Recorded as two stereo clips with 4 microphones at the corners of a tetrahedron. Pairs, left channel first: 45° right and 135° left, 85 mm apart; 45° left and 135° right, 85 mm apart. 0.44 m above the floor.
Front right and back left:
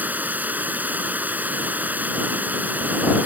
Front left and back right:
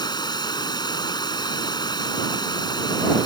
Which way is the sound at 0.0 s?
65° left.